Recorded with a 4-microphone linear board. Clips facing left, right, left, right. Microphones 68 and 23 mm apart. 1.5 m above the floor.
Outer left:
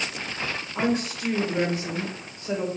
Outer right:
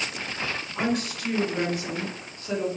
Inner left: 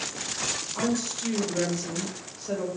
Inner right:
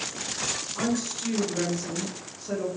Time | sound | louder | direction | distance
0.8 | a woman speaking | outer left 2 dB, inner left 1 dB | 25° left (ahead or behind) | 1.4 m